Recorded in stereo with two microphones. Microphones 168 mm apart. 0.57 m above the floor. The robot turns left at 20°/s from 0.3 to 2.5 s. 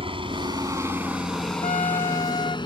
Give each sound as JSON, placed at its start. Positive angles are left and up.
{"t": 0.0, "sound": "a helicopter", "side_deg": -30}
{"t": 1.6, "sound": "a trumpet", "side_deg": 50}